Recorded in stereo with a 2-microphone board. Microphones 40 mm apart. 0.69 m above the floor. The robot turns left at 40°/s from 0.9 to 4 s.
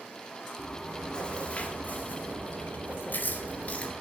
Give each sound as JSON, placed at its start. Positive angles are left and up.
{"t": 0.6, "sound": "chewing", "azimuth_deg": 165, "distance_m": 1.7}